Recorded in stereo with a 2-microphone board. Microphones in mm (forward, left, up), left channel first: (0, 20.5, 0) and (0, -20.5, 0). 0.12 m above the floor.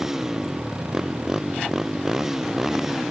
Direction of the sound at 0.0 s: 10° right (ahead or behind).